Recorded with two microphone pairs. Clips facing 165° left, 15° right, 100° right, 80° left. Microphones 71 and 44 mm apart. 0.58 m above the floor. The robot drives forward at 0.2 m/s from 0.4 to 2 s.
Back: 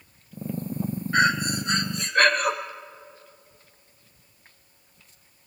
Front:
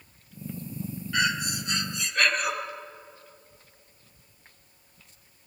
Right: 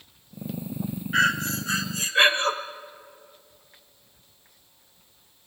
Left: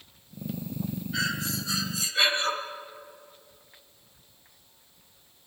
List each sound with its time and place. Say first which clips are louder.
1.1 s breathing: back 6 dB, right 9 dB; 140° right, 0.6 m; by 2.5 s 150° right, 0.7 m